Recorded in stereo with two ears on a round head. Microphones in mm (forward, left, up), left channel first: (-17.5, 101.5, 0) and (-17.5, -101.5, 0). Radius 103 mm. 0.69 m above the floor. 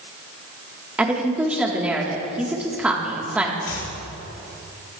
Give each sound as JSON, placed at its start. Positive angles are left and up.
{"t": 1.0, "sound": "a woman speaking", "side_deg": -5, "distance_m": 1.4}
{"t": 3.6, "sound": "chopping", "side_deg": 65, "distance_m": 2.0}